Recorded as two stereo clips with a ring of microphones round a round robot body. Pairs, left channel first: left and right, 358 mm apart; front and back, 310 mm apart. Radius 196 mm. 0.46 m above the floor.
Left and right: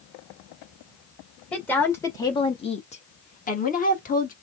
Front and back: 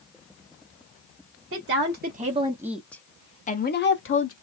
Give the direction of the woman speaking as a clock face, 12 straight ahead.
6 o'clock.